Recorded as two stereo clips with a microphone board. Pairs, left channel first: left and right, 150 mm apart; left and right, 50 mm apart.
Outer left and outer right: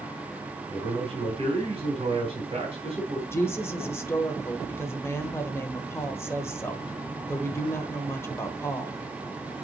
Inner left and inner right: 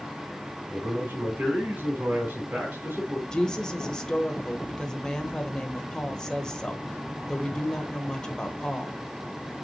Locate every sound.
0.7 s a man speaking: 40° right (ahead or behind), 3 m
3.3 s a woman speaking: 15° left (ahead or behind), 1.2 m